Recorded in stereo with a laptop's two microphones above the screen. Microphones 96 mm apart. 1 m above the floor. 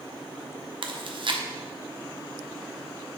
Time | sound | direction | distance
0.8 | chewing | 60° right (ahead or behind) | 0.6 m